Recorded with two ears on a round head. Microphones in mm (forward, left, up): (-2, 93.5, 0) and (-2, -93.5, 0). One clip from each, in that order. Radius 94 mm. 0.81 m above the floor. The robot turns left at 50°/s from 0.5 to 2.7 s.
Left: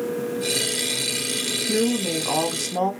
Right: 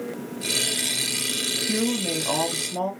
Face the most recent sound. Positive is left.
turn(degrees=160)